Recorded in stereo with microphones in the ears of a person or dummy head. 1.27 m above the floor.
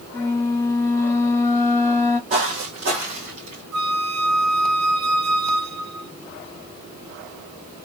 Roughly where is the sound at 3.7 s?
Right.